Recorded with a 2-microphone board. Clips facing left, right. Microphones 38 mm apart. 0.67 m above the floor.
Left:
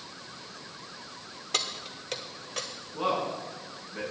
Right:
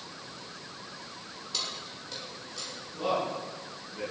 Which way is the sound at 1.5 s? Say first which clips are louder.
Left 5 dB; 70° left (ahead or behind).